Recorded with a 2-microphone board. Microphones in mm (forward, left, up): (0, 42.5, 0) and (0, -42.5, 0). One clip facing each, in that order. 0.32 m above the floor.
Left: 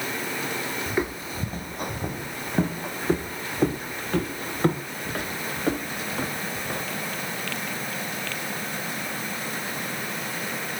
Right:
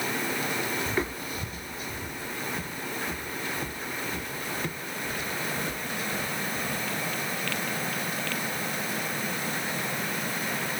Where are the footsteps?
10° left (ahead or behind); by 6.9 s 50° left (ahead or behind).